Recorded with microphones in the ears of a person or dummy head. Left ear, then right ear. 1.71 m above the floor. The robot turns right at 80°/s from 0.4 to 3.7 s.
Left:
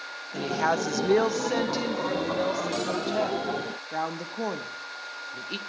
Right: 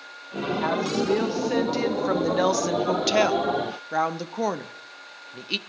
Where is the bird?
No bird in this recording.